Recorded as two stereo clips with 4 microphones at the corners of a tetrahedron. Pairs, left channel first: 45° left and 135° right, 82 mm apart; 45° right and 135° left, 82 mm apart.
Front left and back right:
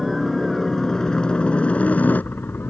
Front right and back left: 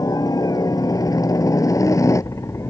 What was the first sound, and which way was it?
A helicopter, 50° right.